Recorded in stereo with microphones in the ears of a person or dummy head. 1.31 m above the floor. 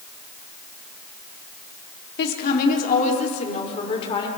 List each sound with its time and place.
2.2 s a woman speaking: 55° left (ahead or behind), 3 m; by 4.3 s 25° left (ahead or behind), 4.5 m